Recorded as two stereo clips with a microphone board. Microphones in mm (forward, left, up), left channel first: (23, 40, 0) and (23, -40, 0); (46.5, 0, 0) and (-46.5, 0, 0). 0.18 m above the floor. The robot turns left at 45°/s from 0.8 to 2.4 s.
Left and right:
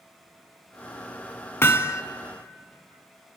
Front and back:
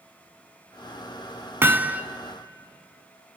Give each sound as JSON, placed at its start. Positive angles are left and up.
{"t": 1.6, "sound": "hammering", "azimuth_deg": 130, "distance_m": 0.7}